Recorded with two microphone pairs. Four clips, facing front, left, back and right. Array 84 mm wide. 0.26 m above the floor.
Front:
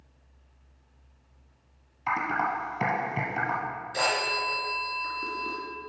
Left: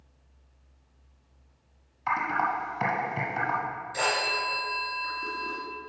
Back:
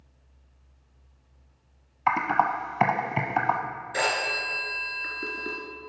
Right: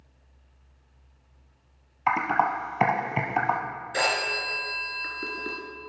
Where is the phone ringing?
135° right, 2.5 m.